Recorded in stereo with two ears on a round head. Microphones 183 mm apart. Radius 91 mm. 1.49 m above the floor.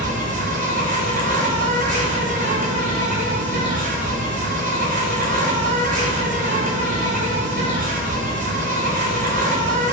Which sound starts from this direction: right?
An insect, at 0.0 s.